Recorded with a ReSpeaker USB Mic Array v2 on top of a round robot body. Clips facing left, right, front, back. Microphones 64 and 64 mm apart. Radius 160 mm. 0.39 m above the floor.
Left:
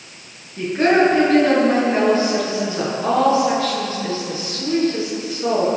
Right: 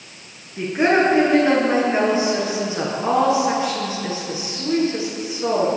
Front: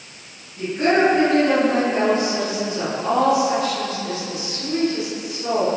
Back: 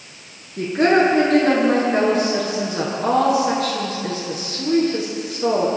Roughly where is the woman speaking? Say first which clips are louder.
Left 2 dB, back 2 dB; behind.